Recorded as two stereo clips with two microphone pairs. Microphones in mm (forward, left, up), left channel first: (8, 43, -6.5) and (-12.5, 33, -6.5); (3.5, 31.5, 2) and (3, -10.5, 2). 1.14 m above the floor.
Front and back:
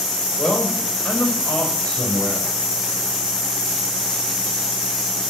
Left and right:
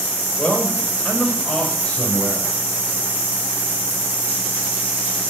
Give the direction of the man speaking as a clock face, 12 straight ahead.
11 o'clock.